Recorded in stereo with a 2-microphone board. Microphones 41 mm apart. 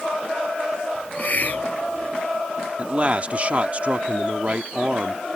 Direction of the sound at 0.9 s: 50° left (ahead or behind).